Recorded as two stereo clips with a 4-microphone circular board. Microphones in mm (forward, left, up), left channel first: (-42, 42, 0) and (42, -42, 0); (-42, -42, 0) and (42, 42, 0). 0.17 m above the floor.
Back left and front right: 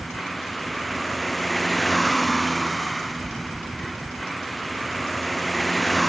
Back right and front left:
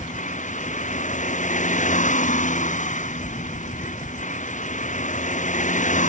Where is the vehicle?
135° right.